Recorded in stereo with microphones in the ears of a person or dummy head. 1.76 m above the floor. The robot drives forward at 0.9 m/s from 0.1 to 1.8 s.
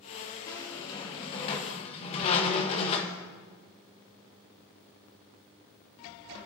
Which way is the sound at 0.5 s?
20° left (ahead or behind).